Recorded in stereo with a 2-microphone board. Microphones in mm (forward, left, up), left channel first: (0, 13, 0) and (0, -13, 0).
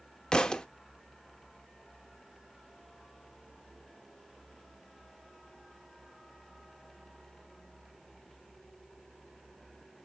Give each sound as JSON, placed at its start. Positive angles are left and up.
{"t": 0.3, "sound": "a thud", "side_deg": 25, "distance_m": 0.7}